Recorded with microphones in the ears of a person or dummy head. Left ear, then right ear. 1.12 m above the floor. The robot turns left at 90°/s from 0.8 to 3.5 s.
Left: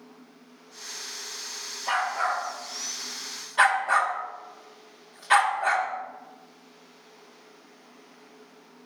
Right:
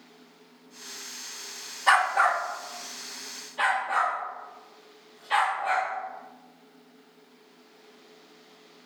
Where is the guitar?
No guitar in this recording.